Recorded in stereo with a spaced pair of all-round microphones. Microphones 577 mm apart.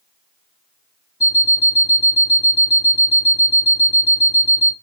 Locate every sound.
1.2 s an alarm clock: 5° left (ahead or behind), 0.7 m